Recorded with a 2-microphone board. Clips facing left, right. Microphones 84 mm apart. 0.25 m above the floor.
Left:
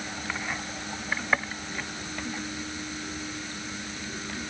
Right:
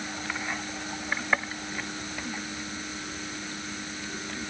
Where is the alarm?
No alarm in this recording.